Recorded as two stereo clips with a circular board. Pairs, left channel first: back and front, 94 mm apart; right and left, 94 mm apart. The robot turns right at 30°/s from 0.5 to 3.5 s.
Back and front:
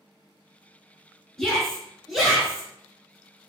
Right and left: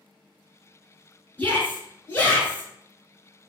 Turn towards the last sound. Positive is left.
turn(degrees=-45)